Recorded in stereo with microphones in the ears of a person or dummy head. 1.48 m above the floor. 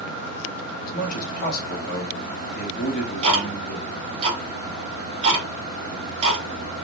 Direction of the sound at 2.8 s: 30° right (ahead or behind).